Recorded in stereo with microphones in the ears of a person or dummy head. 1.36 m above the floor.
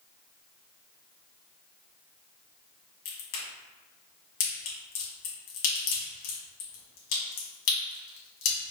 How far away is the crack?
About 1.9 m.